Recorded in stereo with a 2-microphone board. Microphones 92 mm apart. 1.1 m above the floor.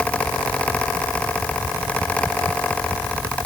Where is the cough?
No cough in this recording.